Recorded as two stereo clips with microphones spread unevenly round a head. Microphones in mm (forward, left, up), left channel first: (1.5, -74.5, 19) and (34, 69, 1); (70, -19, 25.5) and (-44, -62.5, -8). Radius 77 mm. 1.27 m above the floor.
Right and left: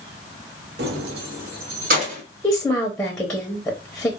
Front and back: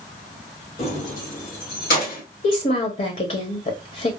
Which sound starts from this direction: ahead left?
Keys jangling, at 0.8 s.